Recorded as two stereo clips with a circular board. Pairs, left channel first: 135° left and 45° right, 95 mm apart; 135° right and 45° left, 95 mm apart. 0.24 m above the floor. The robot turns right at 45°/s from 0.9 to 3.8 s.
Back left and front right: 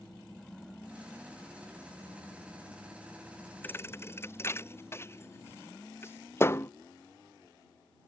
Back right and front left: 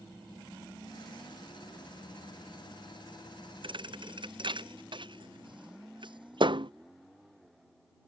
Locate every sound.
3.6 s a thud: 65° left; by 6.7 s 75° left